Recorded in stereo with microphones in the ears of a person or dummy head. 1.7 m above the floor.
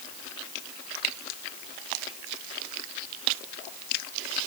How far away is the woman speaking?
No woman speaking in this recording.